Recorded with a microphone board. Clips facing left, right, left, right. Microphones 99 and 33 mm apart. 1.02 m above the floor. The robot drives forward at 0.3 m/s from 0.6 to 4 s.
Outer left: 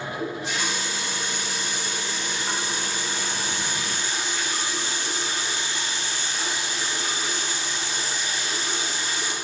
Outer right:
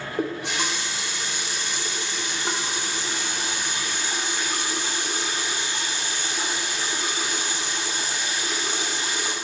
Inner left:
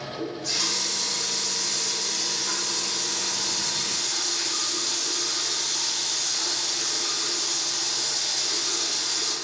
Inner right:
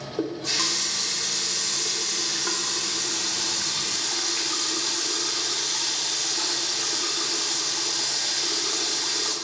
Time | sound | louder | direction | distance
0.2 | a running tap | outer right 5 dB, inner right 4 dB | 75° right (ahead or behind) | 1.3 m